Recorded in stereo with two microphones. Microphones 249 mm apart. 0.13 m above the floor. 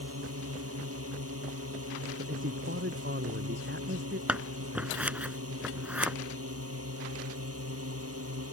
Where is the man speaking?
50° right (ahead or behind).